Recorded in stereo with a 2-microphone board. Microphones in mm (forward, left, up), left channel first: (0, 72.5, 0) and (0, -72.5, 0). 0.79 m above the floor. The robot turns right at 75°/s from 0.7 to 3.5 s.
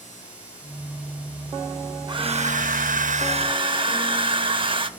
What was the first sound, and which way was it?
A hair dryer, 145° right.